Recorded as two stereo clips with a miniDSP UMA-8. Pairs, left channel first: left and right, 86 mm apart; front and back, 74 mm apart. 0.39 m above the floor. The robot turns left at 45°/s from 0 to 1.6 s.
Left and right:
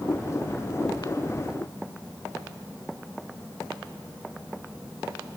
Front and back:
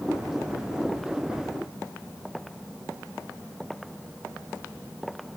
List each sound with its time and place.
Only background noise.